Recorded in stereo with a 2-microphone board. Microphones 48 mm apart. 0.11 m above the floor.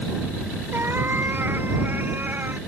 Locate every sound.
0.7 s a cat meowing: 45° right (ahead or behind); by 2.6 s 40° right (ahead or behind)